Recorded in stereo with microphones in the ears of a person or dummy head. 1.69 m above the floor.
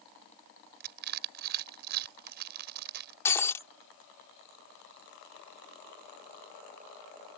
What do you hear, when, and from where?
0.8 s crushing: 50° right (ahead or behind)
3.2 s breaking glass: 20° left (ahead or behind)